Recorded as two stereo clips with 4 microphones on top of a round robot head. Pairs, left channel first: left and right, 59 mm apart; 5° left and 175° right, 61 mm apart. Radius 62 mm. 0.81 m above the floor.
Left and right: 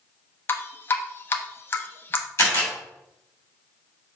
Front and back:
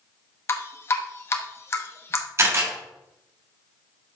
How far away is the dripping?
About 1.0 m.